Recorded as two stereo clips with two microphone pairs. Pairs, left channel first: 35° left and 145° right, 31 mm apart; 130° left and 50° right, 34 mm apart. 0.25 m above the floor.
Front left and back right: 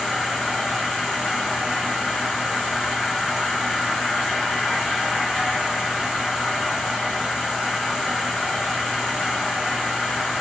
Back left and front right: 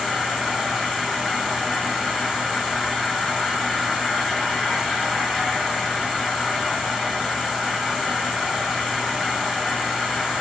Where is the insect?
110° right, 1.6 m.